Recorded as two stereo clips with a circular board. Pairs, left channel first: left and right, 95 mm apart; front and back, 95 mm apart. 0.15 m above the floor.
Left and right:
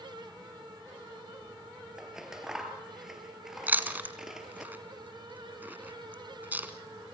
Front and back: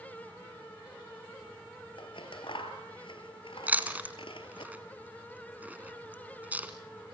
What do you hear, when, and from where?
2.0 s scissors: 5° right, 2 m
3.7 s chewing: 135° right, 1.6 m